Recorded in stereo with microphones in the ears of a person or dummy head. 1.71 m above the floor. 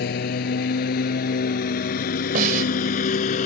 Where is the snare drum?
50° right (ahead or behind).